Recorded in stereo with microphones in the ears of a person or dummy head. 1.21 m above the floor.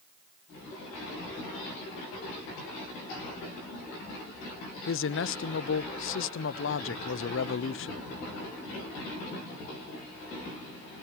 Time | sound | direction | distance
4.9 | a man speaking | 55° left (ahead or behind) | 0.8 m